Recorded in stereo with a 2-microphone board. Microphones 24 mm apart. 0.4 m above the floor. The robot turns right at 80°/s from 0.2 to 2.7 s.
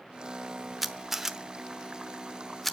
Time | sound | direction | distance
0.8 | a camera shutter | 15° right (ahead or behind) | 0.8 m